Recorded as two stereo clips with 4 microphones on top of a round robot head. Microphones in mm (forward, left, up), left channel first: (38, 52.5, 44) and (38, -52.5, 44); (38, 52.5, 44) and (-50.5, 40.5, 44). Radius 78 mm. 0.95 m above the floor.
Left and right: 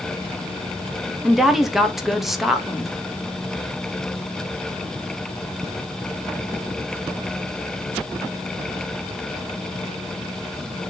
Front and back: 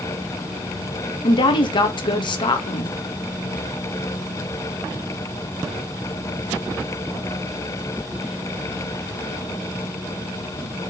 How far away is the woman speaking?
About 1.5 m.